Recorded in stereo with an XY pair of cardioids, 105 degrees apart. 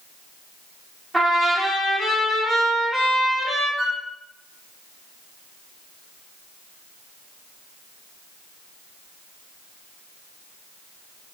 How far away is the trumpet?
About 2.0 m.